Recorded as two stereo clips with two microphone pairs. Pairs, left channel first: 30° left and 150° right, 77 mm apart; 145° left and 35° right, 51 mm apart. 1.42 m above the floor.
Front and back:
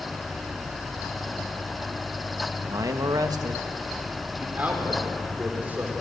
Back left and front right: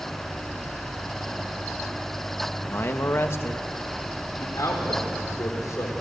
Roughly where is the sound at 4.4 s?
Behind left.